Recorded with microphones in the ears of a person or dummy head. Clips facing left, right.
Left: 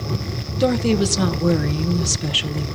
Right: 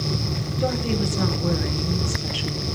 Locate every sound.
0.6 s a woman speaking: 60° left (ahead or behind), 1.0 m